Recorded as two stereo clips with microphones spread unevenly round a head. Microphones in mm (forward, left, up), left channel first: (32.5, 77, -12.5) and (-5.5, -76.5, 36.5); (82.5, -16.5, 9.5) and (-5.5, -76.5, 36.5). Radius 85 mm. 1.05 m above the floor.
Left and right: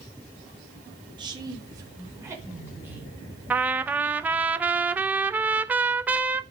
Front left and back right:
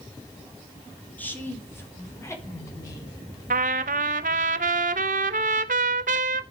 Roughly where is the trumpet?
Behind.